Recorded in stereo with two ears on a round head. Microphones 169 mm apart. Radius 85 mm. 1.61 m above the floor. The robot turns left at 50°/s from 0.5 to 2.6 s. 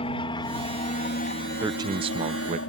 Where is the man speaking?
25° right; by 2.6 s 75° right.